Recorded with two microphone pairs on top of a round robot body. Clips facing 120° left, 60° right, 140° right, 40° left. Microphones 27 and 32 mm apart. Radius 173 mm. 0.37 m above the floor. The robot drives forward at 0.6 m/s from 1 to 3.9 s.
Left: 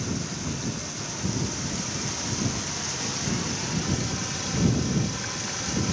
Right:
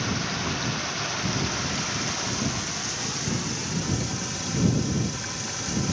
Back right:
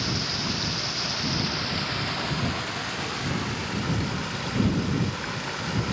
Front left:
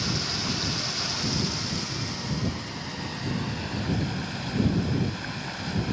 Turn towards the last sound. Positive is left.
turn(degrees=-155)